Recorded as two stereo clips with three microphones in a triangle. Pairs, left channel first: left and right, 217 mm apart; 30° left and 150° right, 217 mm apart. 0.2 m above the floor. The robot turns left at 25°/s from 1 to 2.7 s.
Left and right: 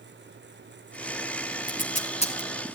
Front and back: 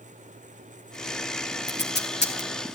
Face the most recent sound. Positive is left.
turn(degrees=25)